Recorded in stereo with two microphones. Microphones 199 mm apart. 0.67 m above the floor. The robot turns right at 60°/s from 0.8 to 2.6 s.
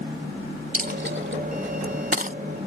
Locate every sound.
0.7 s a dropped coin: 40° right (ahead or behind); by 2.4 s 35° right (ahead or behind)